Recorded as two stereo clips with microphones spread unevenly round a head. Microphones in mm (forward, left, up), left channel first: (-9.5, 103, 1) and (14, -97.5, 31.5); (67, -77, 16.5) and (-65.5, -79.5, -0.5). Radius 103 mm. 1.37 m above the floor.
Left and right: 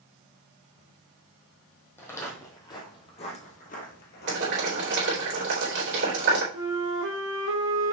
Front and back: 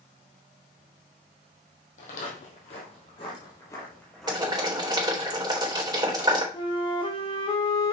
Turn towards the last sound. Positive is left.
turn(degrees=-55)